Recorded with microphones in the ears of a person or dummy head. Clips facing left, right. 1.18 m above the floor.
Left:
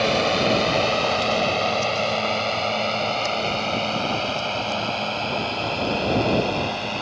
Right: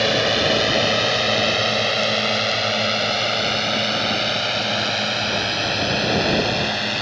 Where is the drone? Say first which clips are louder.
Right 1 dB; 15° right (ahead or behind); by 7.0 s 20° right (ahead or behind).